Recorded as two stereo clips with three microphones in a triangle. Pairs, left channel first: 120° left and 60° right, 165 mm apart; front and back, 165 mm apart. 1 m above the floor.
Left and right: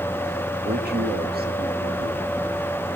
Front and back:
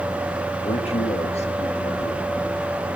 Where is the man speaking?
50° right, 2 m.